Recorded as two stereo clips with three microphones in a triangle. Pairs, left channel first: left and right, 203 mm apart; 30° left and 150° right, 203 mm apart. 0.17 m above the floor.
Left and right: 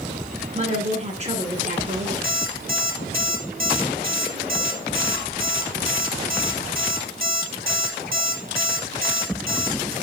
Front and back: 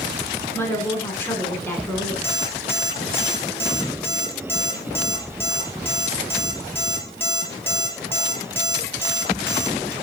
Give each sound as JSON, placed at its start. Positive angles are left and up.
{"t": 0.6, "sound": "a woman speaking", "azimuth_deg": -45, "distance_m": 2.0}
{"t": 2.2, "sound": "an alarm clock", "azimuth_deg": -50, "distance_m": 2.5}